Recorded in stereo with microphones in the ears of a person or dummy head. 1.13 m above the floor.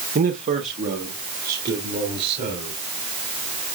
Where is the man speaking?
35° right (ahead or behind), 0.8 m; by 2.8 s 45° right (ahead or behind), 3.5 m.